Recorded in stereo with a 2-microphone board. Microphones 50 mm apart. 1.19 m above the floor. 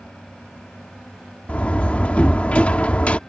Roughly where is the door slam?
Left.